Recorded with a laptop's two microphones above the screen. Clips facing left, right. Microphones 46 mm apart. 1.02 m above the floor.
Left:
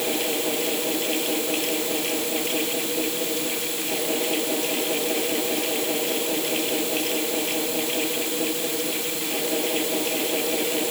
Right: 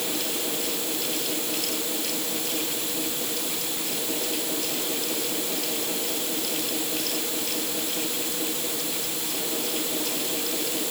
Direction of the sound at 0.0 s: 35° left (ahead or behind).